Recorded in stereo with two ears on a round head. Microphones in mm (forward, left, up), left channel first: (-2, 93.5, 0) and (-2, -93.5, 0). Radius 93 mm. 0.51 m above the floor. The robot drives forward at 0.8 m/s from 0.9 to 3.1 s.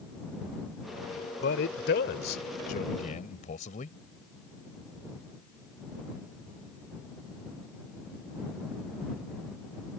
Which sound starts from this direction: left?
A man speaking, at 1.4 s.